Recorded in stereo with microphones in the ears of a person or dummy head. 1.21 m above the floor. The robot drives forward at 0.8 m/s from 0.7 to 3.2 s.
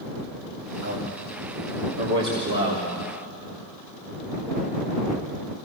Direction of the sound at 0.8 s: 70° right (ahead or behind).